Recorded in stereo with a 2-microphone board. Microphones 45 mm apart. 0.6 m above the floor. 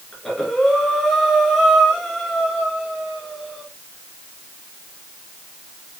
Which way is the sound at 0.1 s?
5° left (ahead or behind).